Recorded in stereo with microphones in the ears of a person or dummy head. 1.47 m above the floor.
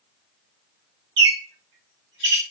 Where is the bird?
60° right (ahead or behind), 0.7 m.